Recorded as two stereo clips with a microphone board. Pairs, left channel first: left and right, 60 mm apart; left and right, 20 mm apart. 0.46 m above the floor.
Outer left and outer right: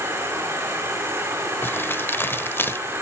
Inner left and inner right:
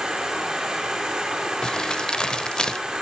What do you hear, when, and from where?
0.0 s an insect: 40° right (ahead or behind), 4.5 m
1.6 s crumpling: 35° left (ahead or behind), 0.7 m